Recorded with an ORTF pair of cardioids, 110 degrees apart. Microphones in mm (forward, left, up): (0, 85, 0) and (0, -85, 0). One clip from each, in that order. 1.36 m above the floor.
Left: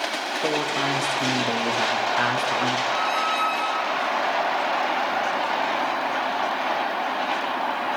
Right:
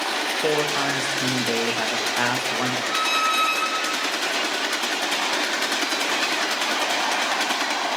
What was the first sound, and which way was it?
A man speaking, 10° right.